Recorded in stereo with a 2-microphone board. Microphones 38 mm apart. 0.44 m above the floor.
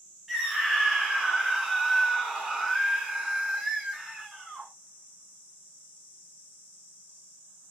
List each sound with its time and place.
0.3 s a scream: 10° right (ahead or behind), 0.9 m